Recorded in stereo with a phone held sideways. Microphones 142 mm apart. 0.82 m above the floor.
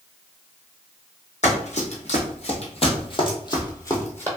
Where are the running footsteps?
55° left (ahead or behind), 1.5 m; by 4.3 s 15° left (ahead or behind), 1.2 m.